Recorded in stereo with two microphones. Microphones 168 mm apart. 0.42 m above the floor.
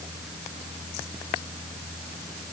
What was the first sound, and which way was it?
Only background noise.